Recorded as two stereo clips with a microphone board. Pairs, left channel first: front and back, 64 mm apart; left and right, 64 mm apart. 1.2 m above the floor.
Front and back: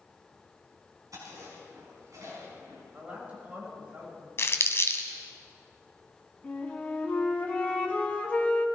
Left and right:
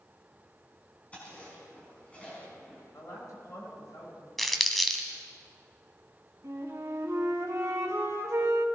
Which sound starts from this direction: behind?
Chewing, at 1.1 s.